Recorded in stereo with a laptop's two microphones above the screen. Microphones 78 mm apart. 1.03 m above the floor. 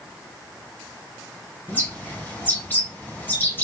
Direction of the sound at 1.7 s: 25° left (ahead or behind).